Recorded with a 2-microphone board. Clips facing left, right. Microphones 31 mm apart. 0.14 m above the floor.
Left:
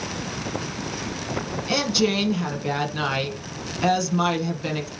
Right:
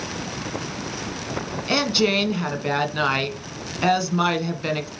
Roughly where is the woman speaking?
Right.